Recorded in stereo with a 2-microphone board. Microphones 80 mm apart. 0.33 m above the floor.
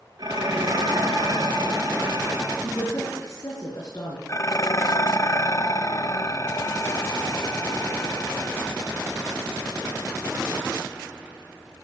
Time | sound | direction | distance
0.2 | dishes clattering | 55° right (ahead or behind) | 4 m
2.6 | a woman speaking | 45° left (ahead or behind) | 4.5 m
4.3 | dishes clattering | 40° left (ahead or behind) | 1.0 m